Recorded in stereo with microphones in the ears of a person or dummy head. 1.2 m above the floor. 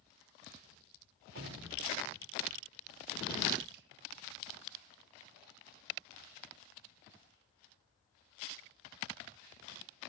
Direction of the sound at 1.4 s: 65° right (ahead or behind).